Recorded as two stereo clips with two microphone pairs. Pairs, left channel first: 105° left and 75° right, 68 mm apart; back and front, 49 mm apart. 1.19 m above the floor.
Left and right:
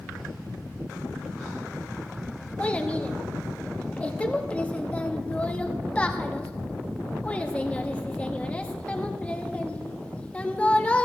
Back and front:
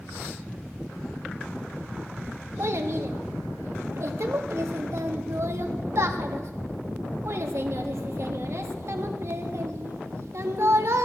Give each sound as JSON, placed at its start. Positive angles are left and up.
{"t": 2.6, "sound": "a child speaking", "azimuth_deg": 30, "distance_m": 1.1}